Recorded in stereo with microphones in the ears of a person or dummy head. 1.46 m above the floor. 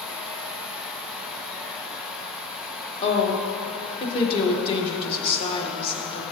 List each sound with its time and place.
3.0 s a woman speaking: 30° left (ahead or behind), 1.4 m